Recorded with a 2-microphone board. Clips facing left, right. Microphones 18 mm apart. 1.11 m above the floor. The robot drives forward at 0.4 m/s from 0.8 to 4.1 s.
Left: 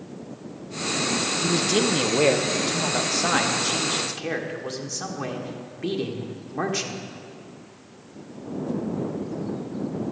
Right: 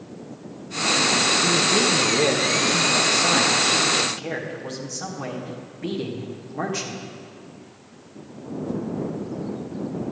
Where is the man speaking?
40° left (ahead or behind), 0.6 m; by 7.1 s 15° left (ahead or behind), 1.3 m.